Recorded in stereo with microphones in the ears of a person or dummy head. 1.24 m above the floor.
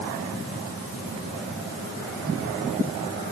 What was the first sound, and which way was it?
Only background noise.